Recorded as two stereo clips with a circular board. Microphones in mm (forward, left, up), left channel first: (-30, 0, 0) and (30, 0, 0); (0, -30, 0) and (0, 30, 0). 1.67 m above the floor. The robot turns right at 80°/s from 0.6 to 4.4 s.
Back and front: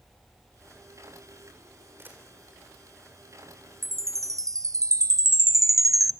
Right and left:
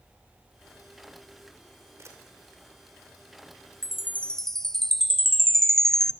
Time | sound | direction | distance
2.0 | a camera shutter | 45° left | 4.5 m
3.8 | a chime | 50° right | 0.6 m